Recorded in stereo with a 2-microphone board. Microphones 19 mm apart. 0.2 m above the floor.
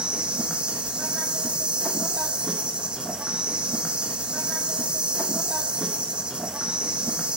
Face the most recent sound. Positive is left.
turn(degrees=-70)  # may be behind; listen again after turning